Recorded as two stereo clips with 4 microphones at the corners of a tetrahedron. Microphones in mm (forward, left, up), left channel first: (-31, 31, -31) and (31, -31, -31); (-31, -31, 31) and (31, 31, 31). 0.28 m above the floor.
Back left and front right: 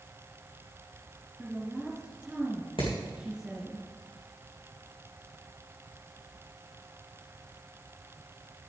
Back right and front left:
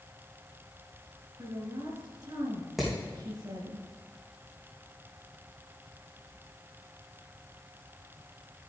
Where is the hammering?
135° left, 4 m.